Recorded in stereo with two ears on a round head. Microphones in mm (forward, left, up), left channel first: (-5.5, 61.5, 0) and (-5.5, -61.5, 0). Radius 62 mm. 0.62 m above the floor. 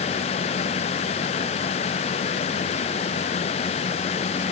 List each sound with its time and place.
Only background noise.